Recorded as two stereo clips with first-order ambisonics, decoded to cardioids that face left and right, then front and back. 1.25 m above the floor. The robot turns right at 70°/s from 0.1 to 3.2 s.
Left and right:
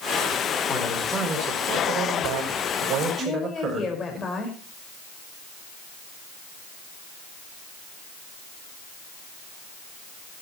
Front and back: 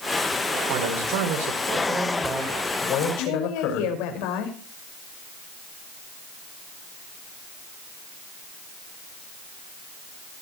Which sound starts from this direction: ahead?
A woman speaking, at 3.2 s.